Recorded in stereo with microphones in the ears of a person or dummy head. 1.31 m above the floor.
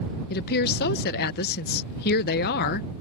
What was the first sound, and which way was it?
A woman speaking, 45° left (ahead or behind).